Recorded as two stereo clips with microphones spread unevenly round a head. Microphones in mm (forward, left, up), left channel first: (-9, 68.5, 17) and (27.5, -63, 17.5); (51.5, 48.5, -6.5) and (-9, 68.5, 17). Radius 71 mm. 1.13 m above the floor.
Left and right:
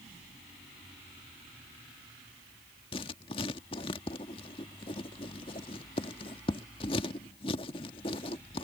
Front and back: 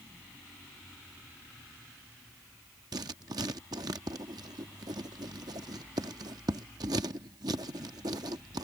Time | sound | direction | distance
2.9 | writing | 160° left | ?